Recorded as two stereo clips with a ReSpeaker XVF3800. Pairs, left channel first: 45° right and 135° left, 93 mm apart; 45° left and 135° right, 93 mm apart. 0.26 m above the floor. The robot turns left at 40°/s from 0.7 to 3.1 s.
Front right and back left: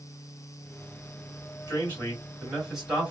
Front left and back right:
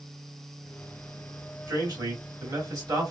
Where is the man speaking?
100° right, 2 m; by 3.1 s 155° right, 2 m.